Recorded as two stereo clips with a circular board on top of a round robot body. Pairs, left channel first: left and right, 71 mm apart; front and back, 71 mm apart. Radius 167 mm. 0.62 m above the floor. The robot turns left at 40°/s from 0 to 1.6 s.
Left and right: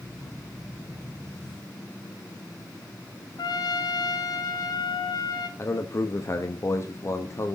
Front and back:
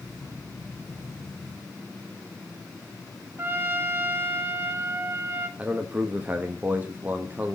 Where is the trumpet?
120° left, 0.7 m.